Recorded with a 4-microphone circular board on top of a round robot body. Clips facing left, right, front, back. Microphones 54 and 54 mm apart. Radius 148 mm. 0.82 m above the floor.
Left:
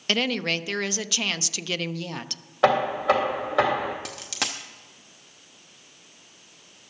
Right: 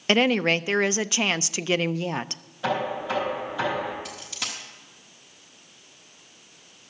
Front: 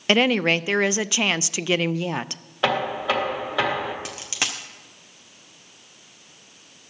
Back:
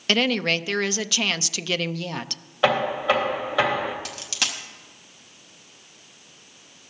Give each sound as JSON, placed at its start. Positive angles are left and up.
{"t": 0.1, "sound": "a woman speaking", "azimuth_deg": -50, "distance_m": 0.5}
{"t": 2.6, "sound": "knocking", "azimuth_deg": 95, "distance_m": 2.0}
{"t": 4.0, "sound": "a dropped coin", "azimuth_deg": 70, "distance_m": 0.6}